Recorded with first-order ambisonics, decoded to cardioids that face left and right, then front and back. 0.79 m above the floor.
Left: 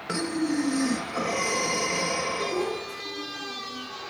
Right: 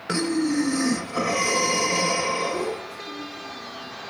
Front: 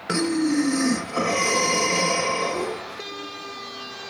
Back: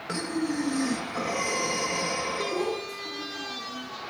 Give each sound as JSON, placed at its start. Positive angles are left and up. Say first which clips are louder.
{"t": 0.1, "sound": "breathing", "louder": "right 4 dB, front 7 dB", "azimuth_deg": -25, "distance_m": 1.0}
{"t": 2.5, "sound": "a child speaking", "louder": "right 1 dB, front 1 dB", "azimuth_deg": 130, "distance_m": 6.0}